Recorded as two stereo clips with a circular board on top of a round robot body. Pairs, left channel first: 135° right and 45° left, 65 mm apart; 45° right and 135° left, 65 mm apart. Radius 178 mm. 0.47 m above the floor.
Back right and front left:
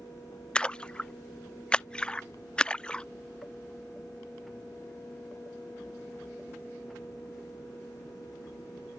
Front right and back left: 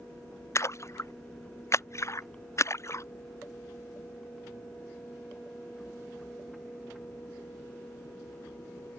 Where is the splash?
65° right.